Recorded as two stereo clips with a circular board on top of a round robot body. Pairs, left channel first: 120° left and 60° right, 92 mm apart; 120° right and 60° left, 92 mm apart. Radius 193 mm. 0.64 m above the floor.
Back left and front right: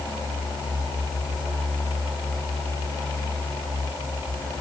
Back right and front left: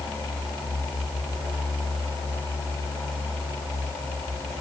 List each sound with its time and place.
Only background noise.